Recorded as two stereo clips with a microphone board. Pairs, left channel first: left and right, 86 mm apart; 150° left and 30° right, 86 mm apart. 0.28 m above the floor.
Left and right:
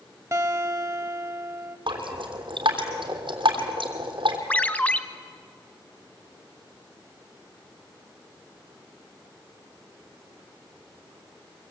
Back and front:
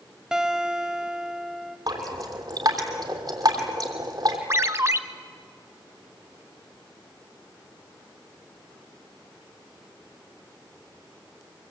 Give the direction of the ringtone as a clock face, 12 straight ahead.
11 o'clock.